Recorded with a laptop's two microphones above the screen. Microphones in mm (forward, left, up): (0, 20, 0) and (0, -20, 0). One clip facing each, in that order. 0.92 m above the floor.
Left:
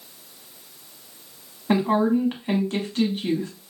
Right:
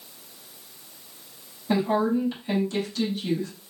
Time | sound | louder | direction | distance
1.7 | a woman speaking | left 3 dB | 40° left (ahead or behind) | 1.0 m